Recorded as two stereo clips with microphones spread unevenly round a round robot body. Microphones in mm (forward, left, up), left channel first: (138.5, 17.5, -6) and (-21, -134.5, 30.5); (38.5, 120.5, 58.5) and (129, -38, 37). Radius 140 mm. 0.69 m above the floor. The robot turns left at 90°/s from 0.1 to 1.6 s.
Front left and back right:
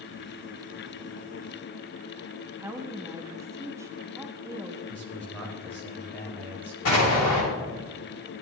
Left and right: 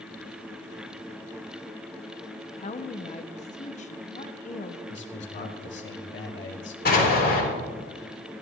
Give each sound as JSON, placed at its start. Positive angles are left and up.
{"t": 2.6, "sound": "a woman speaking", "azimuth_deg": 140, "distance_m": 0.9}
{"t": 4.9, "sound": "a man speaking", "azimuth_deg": 120, "distance_m": 2.0}
{"t": 6.8, "sound": "an explosion", "azimuth_deg": 80, "distance_m": 4.0}